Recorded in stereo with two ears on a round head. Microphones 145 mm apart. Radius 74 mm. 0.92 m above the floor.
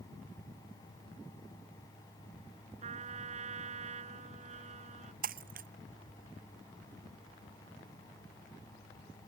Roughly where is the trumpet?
Right.